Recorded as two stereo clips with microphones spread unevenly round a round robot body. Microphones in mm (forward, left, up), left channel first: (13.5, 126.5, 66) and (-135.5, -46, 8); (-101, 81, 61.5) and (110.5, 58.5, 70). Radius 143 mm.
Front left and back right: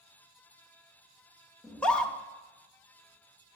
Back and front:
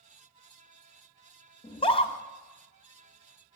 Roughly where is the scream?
Behind.